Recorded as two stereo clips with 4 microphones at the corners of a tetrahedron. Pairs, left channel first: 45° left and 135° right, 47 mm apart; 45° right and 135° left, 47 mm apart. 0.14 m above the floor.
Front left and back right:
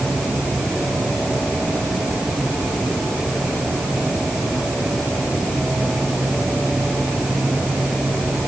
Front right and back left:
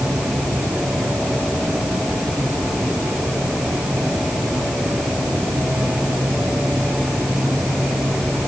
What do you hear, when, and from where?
Only background noise.